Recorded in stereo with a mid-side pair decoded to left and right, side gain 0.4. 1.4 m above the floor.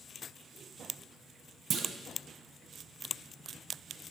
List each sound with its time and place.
1.7 s a clunk: 60° right, 0.7 m